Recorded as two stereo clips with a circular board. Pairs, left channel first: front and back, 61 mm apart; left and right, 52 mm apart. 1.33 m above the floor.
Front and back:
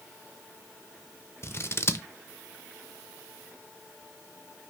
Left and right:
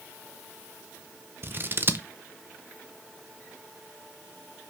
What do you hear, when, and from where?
1.4 s scissors: 45° right, 0.6 m